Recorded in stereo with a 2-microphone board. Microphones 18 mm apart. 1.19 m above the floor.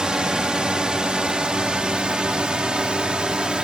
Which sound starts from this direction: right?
A drone, at 0.0 s.